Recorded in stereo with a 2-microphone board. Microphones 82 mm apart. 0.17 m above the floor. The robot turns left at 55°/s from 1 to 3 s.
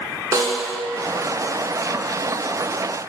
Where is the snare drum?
40° right (ahead or behind), 0.8 m.